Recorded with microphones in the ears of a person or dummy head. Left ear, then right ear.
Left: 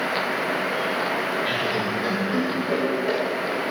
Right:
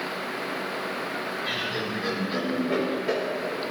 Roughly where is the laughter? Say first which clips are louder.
Left 5 dB; left.